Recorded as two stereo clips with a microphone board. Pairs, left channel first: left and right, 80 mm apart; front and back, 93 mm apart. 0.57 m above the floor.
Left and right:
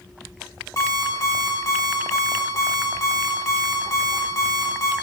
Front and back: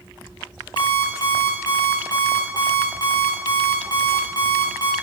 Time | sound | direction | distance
0.8 | an alarm clock | 40° left | 2 m